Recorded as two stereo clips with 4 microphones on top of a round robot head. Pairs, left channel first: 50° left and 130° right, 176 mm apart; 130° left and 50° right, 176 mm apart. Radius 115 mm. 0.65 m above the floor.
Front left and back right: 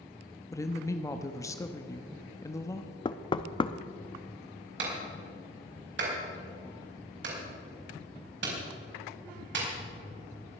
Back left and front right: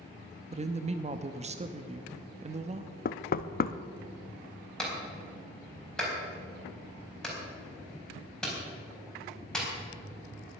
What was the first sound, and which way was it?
A woman speaking, 15° right.